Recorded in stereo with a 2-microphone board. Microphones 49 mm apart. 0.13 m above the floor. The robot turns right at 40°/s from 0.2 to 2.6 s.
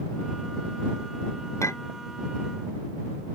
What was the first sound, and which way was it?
A clink, 75° left (ahead or behind).